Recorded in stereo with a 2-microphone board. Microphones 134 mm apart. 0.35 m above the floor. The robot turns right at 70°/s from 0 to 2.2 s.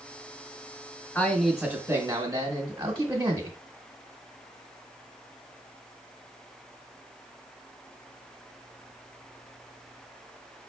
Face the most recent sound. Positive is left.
turn(degrees=-130)